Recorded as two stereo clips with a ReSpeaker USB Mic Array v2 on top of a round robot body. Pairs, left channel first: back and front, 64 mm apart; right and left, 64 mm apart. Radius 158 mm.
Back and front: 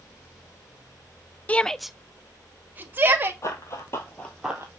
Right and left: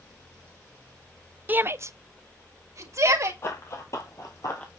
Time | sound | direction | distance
1.5 | a shout | 130° left | 0.9 m
3.4 | running footsteps | 140° right | 1.4 m